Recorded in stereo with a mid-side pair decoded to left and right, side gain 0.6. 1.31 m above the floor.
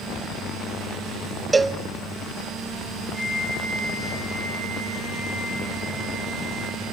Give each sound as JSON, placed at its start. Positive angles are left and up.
{"t": 1.5, "sound": "a cowbell", "azimuth_deg": -20, "distance_m": 0.6}
{"t": 3.1, "sound": "a flute", "azimuth_deg": -15, "distance_m": 4.0}